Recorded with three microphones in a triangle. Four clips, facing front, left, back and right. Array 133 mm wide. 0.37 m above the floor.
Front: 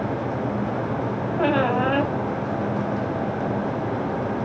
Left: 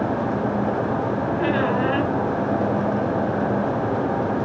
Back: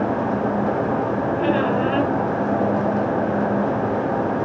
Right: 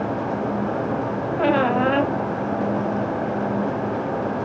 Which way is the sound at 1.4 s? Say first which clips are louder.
Right 4 dB, front 2 dB; 55° right.